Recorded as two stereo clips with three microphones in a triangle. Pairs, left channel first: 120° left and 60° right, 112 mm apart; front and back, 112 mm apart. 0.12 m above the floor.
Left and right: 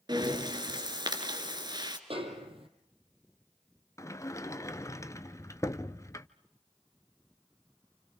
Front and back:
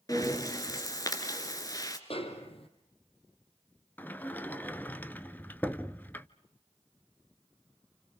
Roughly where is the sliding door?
Left.